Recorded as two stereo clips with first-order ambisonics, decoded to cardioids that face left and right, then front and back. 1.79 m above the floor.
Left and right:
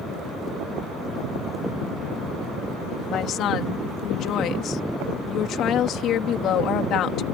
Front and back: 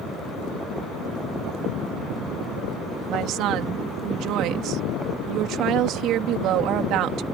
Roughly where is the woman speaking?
Behind left.